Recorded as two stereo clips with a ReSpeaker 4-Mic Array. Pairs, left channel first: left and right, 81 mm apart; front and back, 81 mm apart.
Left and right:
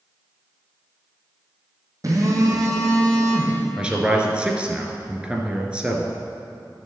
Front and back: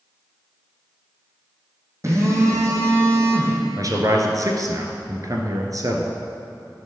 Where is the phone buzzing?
130° right, 2.5 m.